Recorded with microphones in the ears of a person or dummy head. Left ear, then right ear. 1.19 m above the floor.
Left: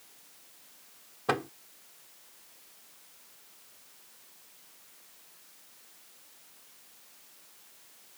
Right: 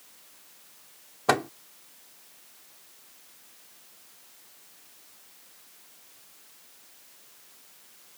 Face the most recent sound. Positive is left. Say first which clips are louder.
# right 6 dB
turn(degrees=-25)  # may be behind; listen again after turning